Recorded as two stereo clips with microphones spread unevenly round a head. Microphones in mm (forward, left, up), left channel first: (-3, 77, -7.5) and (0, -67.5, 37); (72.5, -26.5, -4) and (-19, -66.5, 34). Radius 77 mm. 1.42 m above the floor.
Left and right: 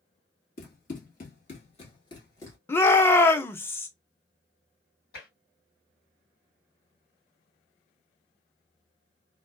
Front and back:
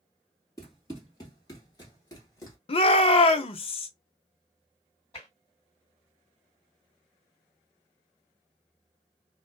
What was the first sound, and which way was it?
Running footsteps, 105° left.